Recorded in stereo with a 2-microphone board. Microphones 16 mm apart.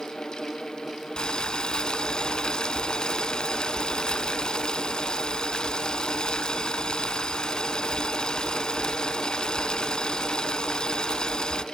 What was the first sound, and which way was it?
Boiling, 75° left (ahead or behind).